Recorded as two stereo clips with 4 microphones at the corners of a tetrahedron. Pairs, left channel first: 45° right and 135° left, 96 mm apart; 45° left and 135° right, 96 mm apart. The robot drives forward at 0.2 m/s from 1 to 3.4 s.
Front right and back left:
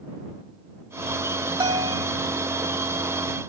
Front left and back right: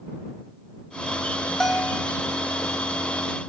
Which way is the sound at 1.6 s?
130° left.